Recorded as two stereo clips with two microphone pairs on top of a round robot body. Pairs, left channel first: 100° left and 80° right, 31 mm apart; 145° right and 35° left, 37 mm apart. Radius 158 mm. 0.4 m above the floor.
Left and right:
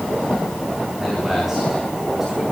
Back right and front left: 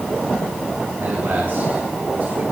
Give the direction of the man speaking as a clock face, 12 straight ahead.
12 o'clock.